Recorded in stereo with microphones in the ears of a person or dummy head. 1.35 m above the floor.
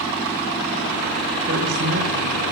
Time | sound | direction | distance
1.5 | a man speaking | 60° right (ahead or behind) | 3.5 m